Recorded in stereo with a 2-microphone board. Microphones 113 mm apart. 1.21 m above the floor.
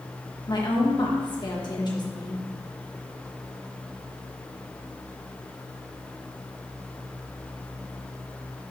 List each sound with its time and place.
0.5 s a woman speaking: 40° left (ahead or behind), 1.7 m